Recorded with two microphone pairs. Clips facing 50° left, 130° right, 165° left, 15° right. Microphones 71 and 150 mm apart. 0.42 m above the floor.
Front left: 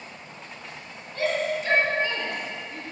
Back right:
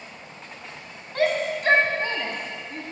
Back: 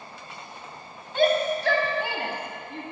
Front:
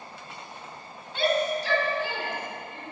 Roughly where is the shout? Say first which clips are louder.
Back right 2 dB, back 3 dB; behind right.